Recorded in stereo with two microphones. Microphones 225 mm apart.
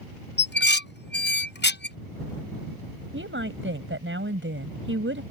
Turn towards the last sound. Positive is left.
turn(degrees=-60)  # may be behind; listen again after turning